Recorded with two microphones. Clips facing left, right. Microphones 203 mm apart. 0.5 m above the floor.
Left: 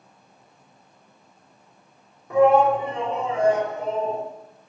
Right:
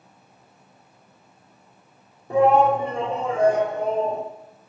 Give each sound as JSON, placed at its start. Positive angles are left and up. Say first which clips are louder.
{"t": 2.3, "sound": "a shout", "louder": "left 1 dB", "side_deg": -30, "distance_m": 1.2}